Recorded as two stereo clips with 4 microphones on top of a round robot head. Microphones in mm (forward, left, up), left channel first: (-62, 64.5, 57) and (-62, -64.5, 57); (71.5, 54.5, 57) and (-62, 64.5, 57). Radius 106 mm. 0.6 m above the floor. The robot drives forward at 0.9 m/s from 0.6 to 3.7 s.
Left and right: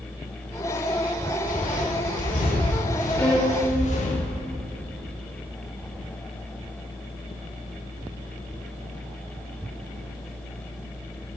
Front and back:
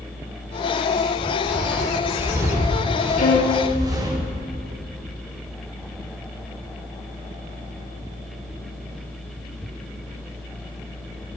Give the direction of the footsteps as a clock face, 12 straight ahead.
9 o'clock.